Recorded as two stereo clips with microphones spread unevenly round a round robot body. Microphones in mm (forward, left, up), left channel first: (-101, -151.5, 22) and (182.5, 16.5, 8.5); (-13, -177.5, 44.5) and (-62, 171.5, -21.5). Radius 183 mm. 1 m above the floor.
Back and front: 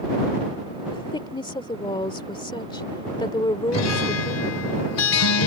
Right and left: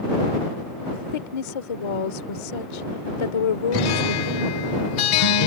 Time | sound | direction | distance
0.9 | a woman speaking | 75° right | ?
3.7 | a guitar | 105° right | ?